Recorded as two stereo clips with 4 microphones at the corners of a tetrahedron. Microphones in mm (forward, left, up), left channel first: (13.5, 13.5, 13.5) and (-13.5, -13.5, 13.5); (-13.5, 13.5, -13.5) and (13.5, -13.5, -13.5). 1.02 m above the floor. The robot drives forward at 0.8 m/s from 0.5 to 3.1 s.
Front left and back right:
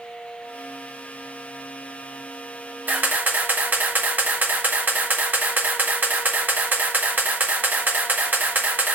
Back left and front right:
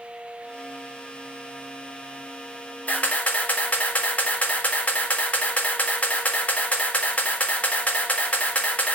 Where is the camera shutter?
175° right, 3.5 m.